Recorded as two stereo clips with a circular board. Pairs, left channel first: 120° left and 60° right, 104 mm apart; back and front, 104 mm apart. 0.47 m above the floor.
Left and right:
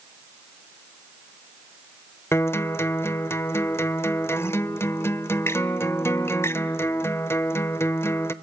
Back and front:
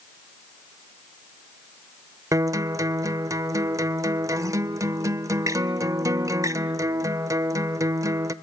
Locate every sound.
2.3 s a guitar: 55° left, 0.7 m